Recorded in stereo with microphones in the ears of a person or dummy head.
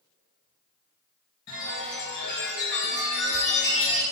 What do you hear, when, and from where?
1.5 s a chime: 45° left (ahead or behind), 1.4 m